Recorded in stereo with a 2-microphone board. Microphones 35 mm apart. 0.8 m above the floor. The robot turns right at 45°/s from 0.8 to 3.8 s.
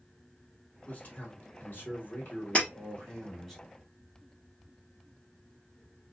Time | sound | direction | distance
0.9 | a man speaking | 50° left | 3 m
2.5 | breaking glass | 40° left (ahead or behind) | 3 m